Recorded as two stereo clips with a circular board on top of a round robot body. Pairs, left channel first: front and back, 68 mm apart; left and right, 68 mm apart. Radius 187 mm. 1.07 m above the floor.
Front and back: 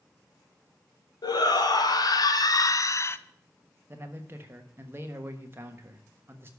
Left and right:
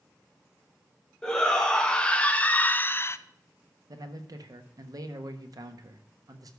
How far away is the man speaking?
About 1.3 m.